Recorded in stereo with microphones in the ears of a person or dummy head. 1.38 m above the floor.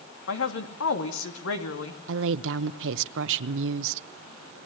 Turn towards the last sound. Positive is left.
turn(degrees=-70)  # may be behind; listen again after turning